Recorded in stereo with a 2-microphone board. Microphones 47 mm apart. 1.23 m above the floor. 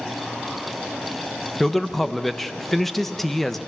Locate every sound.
1.6 s a man speaking: 5° left (ahead or behind), 0.9 m